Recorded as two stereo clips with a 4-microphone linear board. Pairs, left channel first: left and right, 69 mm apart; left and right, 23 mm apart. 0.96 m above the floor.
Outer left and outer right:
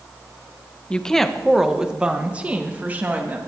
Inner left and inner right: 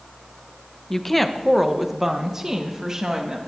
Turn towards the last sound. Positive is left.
turn(degrees=-25)  # may be behind; listen again after turning